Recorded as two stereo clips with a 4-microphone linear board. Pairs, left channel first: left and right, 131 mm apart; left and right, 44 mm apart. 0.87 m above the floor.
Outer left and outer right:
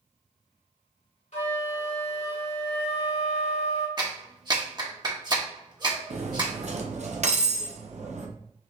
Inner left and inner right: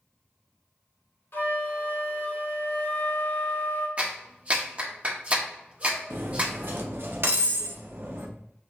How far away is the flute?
About 2.5 m.